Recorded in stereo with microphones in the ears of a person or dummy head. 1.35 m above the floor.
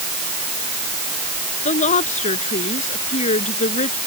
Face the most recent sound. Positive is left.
turn(degrees=40)  # may be behind; listen again after turning